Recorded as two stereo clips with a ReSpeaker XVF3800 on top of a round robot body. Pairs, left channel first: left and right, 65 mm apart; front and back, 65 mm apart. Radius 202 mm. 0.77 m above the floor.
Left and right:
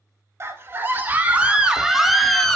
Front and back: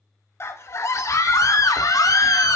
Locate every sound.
0.4 s a scream: 45° right, 2 m; by 2.6 s 10° left, 1.9 m